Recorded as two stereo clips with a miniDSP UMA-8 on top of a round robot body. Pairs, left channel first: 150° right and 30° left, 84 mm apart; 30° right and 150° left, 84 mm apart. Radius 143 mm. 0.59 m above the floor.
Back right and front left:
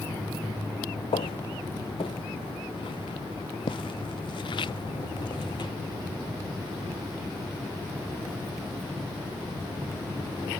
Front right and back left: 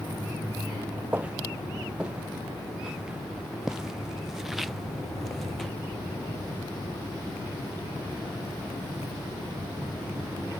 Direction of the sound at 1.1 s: 135° right.